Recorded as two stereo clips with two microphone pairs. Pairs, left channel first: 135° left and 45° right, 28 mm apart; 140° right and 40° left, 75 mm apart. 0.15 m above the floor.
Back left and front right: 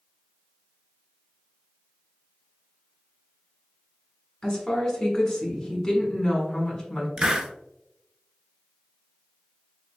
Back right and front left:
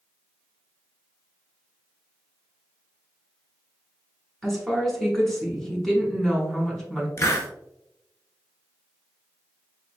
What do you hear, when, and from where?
4.4 s a woman speaking: 135° left, 1.2 m
7.2 s a hiss: 100° right, 0.6 m